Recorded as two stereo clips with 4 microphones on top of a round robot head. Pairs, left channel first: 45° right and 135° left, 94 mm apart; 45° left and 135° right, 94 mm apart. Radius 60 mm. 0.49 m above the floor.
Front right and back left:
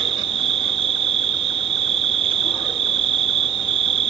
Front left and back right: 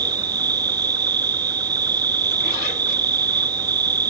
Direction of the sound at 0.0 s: 170° left.